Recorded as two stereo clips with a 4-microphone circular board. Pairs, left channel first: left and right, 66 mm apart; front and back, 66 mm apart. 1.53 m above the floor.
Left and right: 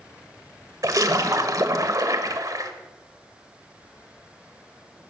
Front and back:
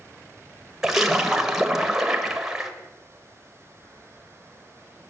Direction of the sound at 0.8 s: 95° right.